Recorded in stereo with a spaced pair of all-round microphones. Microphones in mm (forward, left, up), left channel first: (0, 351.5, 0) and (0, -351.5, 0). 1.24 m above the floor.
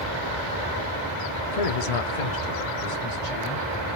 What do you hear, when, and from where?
1.5 s a man speaking: 55° left (ahead or behind), 0.6 m; by 3.7 s 65° left (ahead or behind), 1.6 m